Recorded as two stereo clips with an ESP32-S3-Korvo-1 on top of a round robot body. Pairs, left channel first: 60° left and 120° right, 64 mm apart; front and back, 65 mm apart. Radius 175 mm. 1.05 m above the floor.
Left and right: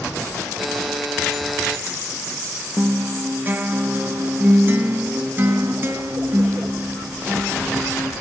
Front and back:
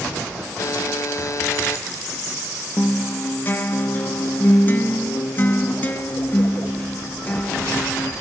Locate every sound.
0.6 s a buzzer: 30° right, 1.4 m
2.8 s a guitar: 60° right, 2.5 m